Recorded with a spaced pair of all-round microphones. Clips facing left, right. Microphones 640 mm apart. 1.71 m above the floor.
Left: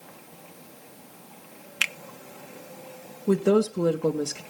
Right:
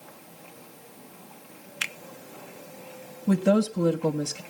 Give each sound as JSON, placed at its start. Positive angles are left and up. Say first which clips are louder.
{"t": 1.8, "sound": "a finger snap", "louder": "left 3 dB", "side_deg": 60, "distance_m": 0.5}
{"t": 3.3, "sound": "a woman speaking", "louder": "left 2 dB", "side_deg": -20, "distance_m": 1.4}